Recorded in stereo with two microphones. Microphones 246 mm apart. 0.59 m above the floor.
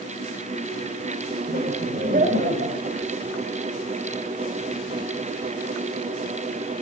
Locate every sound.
1.5 s laughter: 40° right (ahead or behind), 1.9 m; by 3.0 s 35° right (ahead or behind), 4 m